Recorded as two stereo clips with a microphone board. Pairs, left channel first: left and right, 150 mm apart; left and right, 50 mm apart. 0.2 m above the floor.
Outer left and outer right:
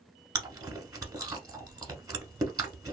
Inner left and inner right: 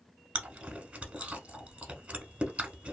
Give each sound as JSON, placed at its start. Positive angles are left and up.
{"t": 0.3, "sound": "chewing", "side_deg": -25, "distance_m": 0.7}